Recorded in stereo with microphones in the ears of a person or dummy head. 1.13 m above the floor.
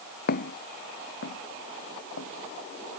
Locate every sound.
0.3 s footsteps: 50° left (ahead or behind); by 3.0 s 60° left (ahead or behind)